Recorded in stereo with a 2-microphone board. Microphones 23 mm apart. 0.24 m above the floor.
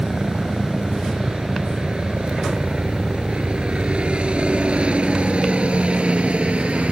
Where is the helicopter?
40° right (ahead or behind); by 6.9 s 65° right (ahead or behind).